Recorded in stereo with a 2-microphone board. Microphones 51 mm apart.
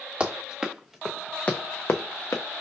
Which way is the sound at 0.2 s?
20° right (ahead or behind).